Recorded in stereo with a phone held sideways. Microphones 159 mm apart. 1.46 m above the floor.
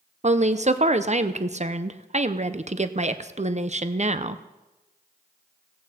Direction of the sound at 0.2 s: 45° right (ahead or behind).